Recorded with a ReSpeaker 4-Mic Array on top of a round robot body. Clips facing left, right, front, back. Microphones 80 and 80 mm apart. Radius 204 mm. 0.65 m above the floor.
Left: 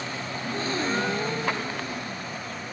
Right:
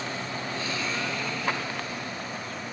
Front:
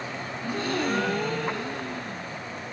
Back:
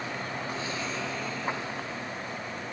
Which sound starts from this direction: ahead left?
A gasp, at 0.4 s.